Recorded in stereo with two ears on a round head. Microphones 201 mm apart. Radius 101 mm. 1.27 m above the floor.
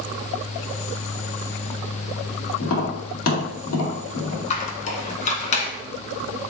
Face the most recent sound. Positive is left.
turn(degrees=35)  # may be behind; listen again after turning